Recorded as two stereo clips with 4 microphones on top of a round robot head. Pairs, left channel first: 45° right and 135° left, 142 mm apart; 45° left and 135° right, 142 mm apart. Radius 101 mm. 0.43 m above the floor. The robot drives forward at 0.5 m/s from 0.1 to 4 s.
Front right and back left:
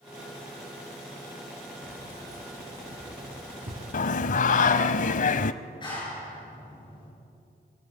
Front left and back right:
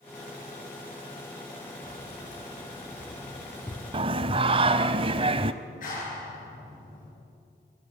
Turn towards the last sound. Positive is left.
turn(degrees=15)